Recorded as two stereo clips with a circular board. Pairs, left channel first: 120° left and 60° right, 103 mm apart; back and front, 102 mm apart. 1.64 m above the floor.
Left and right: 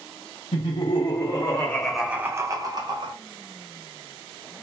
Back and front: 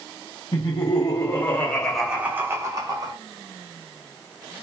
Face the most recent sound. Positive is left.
turn(degrees=-40)